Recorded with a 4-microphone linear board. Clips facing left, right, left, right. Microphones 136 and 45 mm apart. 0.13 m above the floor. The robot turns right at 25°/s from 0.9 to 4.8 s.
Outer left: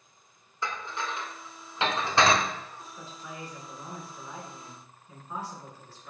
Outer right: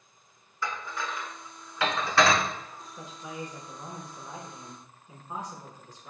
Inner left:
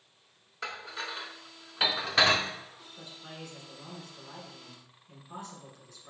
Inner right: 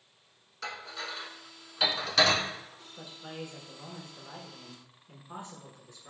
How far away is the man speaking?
About 1.1 m.